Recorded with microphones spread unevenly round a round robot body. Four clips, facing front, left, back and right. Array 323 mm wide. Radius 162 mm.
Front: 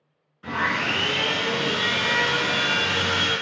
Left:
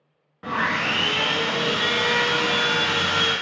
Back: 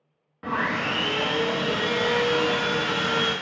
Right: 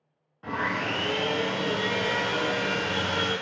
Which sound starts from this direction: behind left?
Sawing, at 0.4 s.